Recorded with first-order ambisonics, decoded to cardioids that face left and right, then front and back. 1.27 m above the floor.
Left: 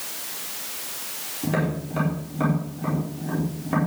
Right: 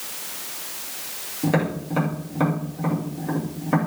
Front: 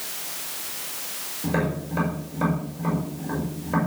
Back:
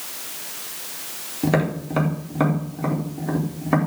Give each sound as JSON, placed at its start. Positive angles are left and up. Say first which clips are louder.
{"t": 1.4, "sound": "tapping", "louder": "right 3 dB, back 5 dB", "azimuth_deg": -165, "distance_m": 4.0}